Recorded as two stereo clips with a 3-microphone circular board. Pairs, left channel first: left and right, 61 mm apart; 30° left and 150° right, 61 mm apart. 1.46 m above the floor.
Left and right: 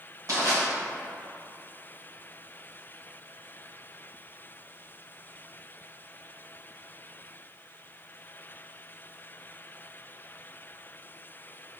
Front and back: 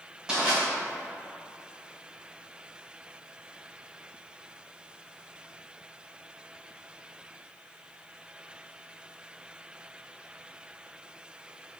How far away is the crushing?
About 1.7 m.